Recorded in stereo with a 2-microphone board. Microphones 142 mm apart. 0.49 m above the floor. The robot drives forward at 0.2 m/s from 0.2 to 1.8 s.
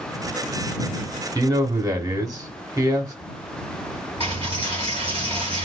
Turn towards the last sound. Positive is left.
turn(degrees=30)  # may be behind; listen again after turning